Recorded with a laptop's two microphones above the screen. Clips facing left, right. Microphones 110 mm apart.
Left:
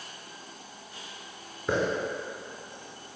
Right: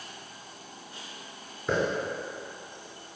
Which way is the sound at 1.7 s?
5° left (ahead or behind).